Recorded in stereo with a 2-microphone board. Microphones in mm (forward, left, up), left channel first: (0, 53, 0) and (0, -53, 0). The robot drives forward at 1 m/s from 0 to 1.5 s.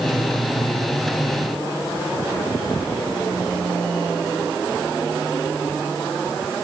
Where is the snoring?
No snoring in this recording.